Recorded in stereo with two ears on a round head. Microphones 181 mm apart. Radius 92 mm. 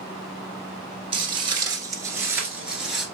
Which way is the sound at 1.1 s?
25° right (ahead or behind).